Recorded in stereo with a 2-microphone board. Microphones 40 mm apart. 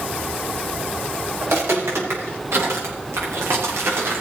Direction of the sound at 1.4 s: 85° right.